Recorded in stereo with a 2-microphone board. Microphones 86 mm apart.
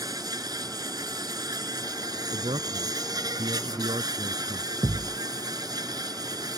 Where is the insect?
50° right (ahead or behind).